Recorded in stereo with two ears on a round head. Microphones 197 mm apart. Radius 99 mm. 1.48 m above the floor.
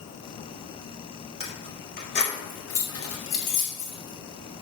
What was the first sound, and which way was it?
Keys jangling, 25° left (ahead or behind).